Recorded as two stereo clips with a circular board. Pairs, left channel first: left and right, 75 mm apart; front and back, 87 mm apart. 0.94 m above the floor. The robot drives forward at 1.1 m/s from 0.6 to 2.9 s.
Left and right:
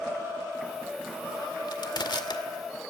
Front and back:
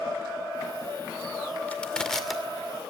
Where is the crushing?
75° left, 2 m; by 2.4 s 95° left, 2 m.